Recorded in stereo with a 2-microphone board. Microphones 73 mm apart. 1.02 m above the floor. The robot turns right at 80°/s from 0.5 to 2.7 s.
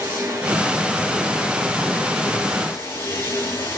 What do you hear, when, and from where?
0.0 s running water: 30° right, 7 m; by 3.8 s 145° left, 7 m